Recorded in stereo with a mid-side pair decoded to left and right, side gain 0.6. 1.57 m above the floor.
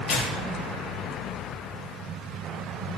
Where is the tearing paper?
40° left, 2.5 m.